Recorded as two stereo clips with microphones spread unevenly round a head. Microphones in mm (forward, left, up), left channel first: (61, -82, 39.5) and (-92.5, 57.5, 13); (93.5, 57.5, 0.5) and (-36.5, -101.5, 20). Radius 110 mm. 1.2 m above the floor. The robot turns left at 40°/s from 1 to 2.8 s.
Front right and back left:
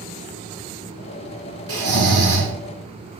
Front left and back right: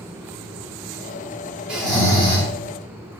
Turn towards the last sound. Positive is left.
turn(degrees=100)